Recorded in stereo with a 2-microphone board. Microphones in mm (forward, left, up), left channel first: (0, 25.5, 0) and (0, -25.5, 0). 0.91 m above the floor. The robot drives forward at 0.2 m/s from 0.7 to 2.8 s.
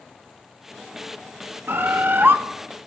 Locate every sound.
1.7 s a bird: 50° right (ahead or behind), 0.6 m; by 2.4 s 45° right (ahead or behind), 0.6 m